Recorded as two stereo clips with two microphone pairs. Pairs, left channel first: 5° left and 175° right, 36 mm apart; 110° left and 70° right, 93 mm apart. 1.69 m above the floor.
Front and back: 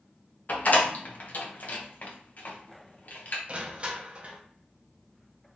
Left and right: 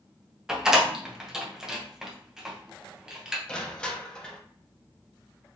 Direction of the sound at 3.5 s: 175° right.